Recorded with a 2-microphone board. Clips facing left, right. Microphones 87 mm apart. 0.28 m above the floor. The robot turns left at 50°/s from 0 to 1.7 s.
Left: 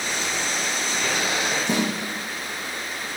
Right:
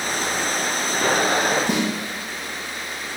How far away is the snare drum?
About 3 m.